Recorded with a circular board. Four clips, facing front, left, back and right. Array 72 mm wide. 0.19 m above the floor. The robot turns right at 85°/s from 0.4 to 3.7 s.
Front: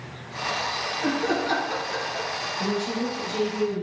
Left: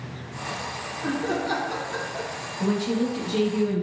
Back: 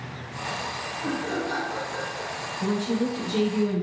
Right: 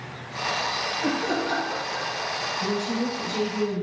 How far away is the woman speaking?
About 3 m.